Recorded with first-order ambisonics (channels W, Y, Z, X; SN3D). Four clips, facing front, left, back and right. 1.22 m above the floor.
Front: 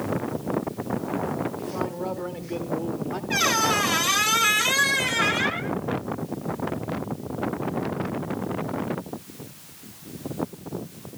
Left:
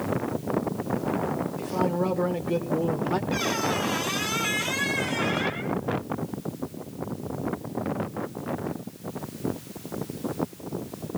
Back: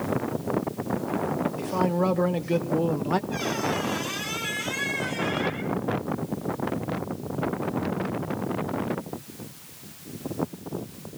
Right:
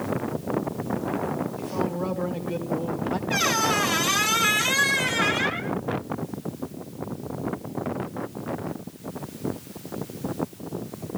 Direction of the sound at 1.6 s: 175° left.